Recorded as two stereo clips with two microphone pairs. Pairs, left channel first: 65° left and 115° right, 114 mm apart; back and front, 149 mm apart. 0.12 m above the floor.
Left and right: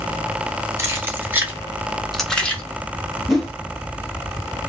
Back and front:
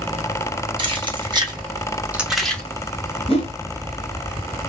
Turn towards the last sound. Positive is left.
turn(degrees=150)